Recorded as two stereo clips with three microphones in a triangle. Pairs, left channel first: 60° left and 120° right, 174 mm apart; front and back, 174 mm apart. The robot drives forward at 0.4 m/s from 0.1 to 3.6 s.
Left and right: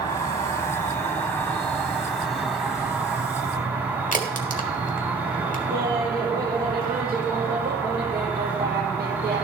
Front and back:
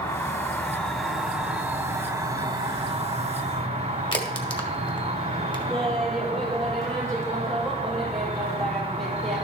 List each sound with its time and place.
0.0 s an insect: 35° left, 1.2 m; by 9.4 s 165° left, 1.5 m
4.1 s a crack: 50° left, 1.2 m
5.7 s laughter: 85° right, 1.6 m